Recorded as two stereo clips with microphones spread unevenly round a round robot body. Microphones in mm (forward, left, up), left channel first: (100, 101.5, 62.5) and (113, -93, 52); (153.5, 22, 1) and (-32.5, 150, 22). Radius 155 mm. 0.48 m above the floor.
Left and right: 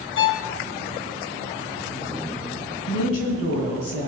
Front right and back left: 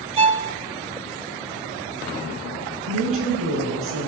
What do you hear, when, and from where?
0.2 s a violin: 80° left, 1.1 m
2.9 s a woman speaking: 125° left, 6 m